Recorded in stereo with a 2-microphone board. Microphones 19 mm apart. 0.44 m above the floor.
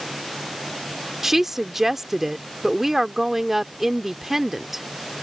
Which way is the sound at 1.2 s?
20° right (ahead or behind).